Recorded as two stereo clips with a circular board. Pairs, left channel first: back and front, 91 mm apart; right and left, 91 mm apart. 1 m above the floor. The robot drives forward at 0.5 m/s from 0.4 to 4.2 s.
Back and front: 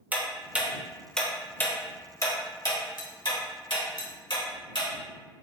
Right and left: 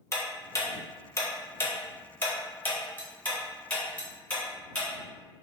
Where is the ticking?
60° right, 0.9 m; by 4.9 s 165° right, 1.8 m.